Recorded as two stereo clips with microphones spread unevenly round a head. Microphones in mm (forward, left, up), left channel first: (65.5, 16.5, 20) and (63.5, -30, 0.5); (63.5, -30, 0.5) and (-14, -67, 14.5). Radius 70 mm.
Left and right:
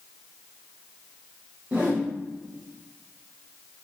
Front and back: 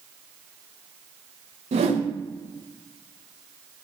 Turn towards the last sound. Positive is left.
turn(degrees=-170)